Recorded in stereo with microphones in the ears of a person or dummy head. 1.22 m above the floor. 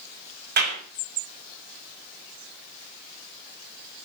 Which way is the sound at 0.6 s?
50° right (ahead or behind).